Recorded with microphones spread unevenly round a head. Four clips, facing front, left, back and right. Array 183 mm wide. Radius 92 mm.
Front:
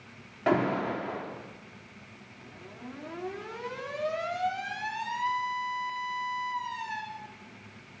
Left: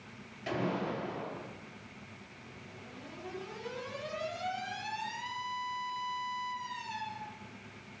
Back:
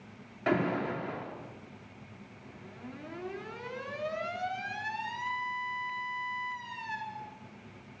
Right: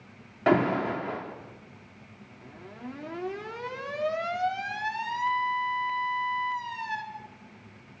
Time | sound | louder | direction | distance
0.5 | an alarm | right 11 dB, front 3 dB | 80° right | 4 m